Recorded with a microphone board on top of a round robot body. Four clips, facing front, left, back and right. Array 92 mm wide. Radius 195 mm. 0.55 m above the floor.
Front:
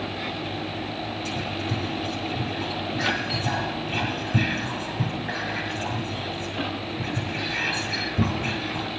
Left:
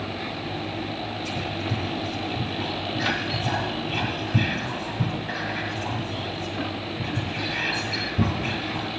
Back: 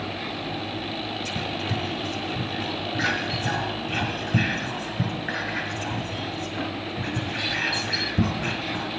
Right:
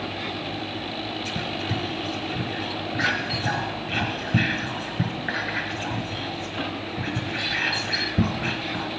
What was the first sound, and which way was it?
Whispering, 125° right.